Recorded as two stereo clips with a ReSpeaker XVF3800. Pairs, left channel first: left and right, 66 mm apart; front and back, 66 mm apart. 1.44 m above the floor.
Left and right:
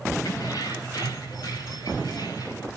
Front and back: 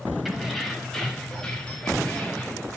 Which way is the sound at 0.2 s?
90° left.